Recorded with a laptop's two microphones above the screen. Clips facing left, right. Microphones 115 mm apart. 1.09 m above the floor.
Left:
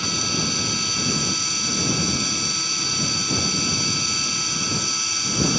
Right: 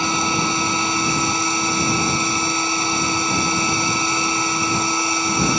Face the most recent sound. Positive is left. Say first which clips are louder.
# right 7 dB
turn(degrees=-55)  # may be behind; listen again after turning